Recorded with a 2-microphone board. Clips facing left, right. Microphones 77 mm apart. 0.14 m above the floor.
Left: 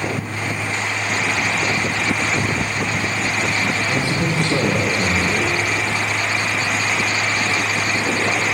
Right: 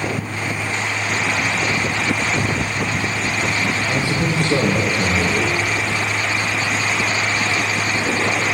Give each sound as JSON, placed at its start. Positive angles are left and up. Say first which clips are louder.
{"t": 3.9, "sound": "a man speaking", "louder": "even", "side_deg": -20, "distance_m": 2.5}